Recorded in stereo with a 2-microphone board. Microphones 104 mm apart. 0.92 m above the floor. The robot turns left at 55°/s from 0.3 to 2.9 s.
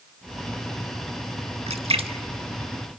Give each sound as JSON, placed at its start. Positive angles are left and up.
{"t": 1.7, "sound": "a splash", "side_deg": -75, "distance_m": 1.0}